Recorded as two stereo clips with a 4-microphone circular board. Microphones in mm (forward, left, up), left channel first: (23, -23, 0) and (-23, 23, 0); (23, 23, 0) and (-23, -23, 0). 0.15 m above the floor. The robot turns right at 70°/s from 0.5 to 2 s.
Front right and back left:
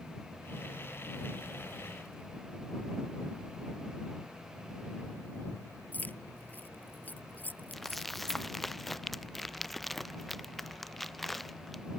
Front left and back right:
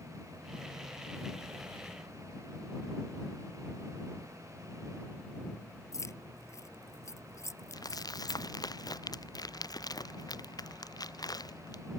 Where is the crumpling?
40° left.